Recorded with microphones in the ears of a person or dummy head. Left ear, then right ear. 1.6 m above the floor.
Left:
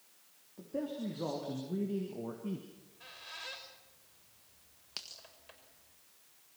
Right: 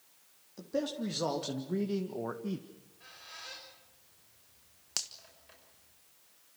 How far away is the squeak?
About 5.5 m.